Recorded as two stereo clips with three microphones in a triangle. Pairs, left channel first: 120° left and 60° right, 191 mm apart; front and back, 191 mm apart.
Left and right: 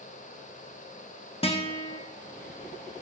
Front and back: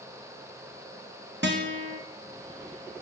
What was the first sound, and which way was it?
A guitar, straight behind.